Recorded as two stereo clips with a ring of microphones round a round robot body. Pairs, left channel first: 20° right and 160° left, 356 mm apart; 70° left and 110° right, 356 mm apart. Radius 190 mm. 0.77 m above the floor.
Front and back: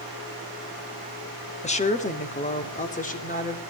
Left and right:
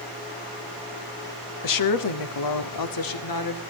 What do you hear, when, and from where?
1.6 s a woman speaking: 45° left, 1.5 m